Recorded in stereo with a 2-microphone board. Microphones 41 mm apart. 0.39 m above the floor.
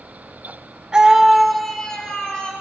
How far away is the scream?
About 0.8 m.